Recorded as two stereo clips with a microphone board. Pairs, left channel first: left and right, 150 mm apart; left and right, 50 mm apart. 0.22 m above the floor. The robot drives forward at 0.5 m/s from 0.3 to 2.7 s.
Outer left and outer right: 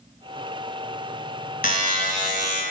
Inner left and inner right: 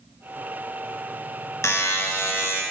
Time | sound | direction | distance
1.6 | a buzzer | 65° left (ahead or behind) | 1.1 m